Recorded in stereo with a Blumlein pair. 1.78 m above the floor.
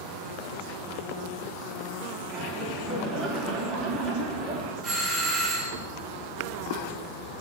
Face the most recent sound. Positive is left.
turn(degrees=-15)